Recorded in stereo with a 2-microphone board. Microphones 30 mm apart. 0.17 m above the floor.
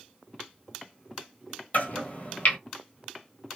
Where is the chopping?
50° left (ahead or behind), 1.1 m.